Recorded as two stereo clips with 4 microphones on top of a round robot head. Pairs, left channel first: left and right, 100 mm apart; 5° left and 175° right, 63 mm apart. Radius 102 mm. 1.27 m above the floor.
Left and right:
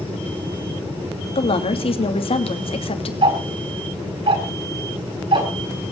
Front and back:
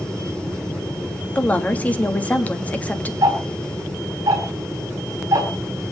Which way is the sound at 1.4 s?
70° left.